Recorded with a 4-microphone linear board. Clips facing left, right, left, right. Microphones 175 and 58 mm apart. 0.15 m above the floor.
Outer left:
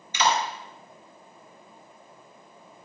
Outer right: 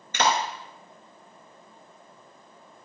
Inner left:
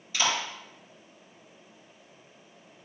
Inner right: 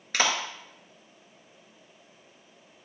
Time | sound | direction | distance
0.1 | a clap | 55° right (ahead or behind) | 2.5 m